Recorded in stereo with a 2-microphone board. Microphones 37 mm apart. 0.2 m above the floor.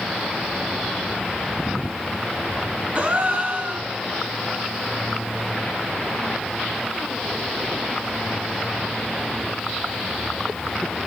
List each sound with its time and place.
3.0 s a gasp: 35° right (ahead or behind), 1.2 m